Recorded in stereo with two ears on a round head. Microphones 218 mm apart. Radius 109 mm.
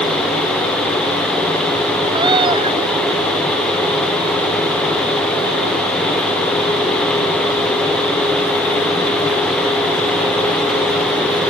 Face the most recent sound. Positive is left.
turn(degrees=-20)  # may be behind; listen again after turning